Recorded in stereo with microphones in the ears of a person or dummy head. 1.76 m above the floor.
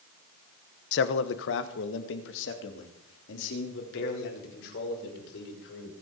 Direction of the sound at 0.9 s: 65° left (ahead or behind).